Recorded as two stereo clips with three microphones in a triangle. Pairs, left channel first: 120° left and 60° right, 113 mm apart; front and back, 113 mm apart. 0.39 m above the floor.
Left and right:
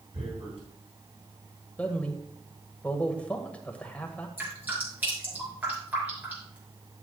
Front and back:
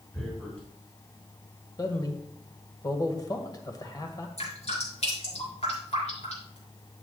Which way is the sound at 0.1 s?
80° right.